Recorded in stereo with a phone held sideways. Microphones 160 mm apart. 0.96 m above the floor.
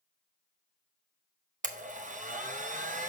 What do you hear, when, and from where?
1.6 s a blender: 55° right (ahead or behind), 0.6 m